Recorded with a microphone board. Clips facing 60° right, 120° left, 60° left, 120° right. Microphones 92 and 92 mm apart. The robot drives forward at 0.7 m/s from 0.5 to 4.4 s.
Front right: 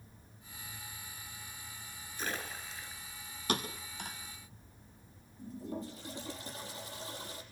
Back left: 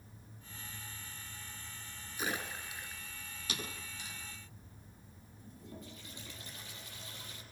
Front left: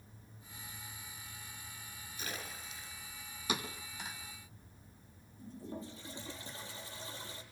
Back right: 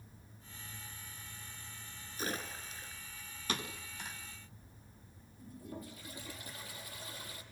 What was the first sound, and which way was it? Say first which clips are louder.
A splash: back left 1 dB, back right 5 dB; 165° right.